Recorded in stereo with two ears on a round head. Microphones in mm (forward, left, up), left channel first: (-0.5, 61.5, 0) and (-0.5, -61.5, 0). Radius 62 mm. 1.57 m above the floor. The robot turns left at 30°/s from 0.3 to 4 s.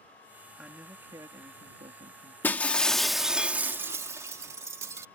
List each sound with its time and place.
0.6 s a man speaking: 5° right; by 2.3 s 55° right
2.4 s breaking glass: 20° left; by 5.0 s 25° right